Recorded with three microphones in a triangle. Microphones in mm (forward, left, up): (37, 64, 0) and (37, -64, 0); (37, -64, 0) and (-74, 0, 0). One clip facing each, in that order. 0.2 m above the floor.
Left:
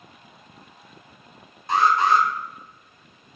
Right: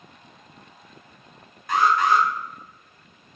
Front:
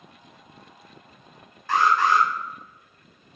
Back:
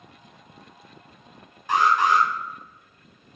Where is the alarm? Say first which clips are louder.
Left 1 dB, even; 95° left, 0.8 m.